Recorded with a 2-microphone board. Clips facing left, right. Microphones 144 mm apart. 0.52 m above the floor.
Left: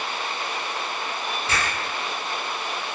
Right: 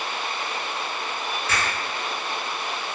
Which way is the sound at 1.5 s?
30° left (ahead or behind).